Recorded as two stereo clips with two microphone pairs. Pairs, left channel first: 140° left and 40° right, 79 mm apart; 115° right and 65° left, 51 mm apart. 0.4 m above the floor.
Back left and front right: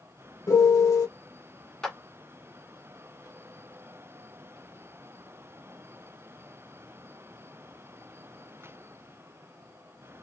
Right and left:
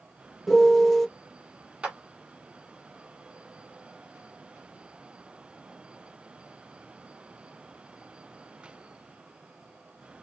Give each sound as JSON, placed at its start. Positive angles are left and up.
{"t": 0.5, "sound": "a piano", "azimuth_deg": 160, "distance_m": 0.8}
{"t": 1.8, "sound": "a clap", "azimuth_deg": 75, "distance_m": 1.1}